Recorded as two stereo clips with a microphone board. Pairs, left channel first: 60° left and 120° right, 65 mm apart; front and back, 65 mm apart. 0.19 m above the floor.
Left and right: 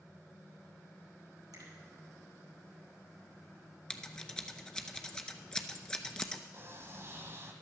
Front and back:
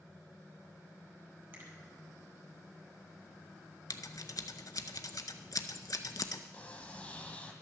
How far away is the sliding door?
About 1.4 m.